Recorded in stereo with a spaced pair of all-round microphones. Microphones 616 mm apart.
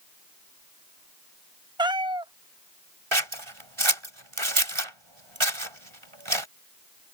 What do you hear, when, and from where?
1.8 s a cat meowing: 10° right (ahead or behind)
3.1 s scissors: 50° right (ahead or behind)